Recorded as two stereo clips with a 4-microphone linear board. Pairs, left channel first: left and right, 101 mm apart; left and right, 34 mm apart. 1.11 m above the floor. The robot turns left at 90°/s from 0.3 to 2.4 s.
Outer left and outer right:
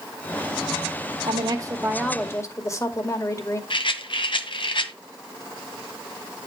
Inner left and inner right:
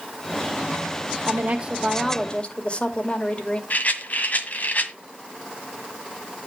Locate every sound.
1.3 s a woman speaking: 110° right, 2.5 m; by 3.6 s 145° left, 2.5 m
3.7 s a rattle: 60° left (ahead or behind), 1.6 m